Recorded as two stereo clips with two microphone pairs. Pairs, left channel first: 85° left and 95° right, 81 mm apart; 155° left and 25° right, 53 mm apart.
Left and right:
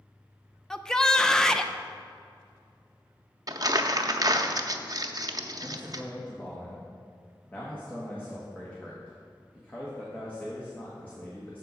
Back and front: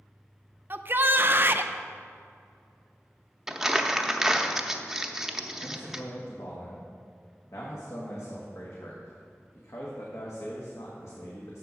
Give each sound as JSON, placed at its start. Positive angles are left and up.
{"t": 0.7, "sound": "a shout", "azimuth_deg": 5, "distance_m": 0.6}
{"t": 3.5, "sound": "crumpling", "azimuth_deg": -100, "distance_m": 0.6}
{"t": 5.6, "sound": "a man speaking", "azimuth_deg": 155, "distance_m": 1.5}